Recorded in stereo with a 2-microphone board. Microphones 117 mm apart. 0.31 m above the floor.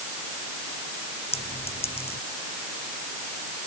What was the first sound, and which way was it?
A clink, 50° left (ahead or behind).